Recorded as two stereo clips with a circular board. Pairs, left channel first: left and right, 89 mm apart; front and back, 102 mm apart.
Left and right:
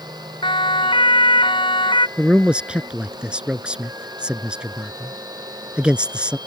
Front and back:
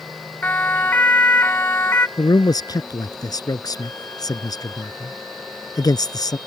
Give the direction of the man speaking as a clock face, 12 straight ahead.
1 o'clock.